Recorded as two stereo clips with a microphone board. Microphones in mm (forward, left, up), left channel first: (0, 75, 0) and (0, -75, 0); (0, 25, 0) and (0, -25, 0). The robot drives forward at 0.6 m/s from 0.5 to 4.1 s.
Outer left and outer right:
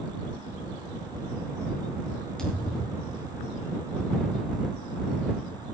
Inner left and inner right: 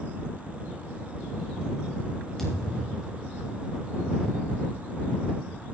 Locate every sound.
2.4 s a thud: 5° left (ahead or behind), 7.5 m